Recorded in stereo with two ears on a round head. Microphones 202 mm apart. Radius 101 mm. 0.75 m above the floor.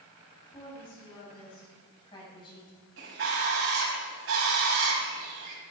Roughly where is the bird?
Right.